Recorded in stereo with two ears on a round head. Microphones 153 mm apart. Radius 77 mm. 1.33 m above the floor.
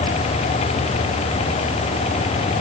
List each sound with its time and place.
Only background noise.